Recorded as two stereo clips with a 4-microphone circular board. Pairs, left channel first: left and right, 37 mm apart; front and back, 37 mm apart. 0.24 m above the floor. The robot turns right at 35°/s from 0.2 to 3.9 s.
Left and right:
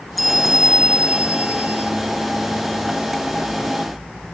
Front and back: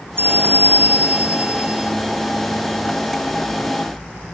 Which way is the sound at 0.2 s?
Straight behind.